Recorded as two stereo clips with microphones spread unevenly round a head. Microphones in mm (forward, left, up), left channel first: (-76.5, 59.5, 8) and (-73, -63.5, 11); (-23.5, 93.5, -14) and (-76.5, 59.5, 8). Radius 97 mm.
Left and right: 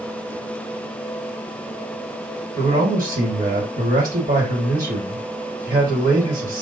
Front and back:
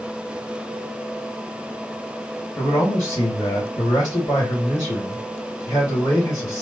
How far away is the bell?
I don't hear a bell.